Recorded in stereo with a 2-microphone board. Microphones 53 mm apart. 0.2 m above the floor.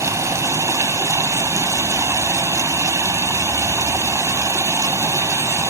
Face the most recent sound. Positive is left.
turn(degrees=-80)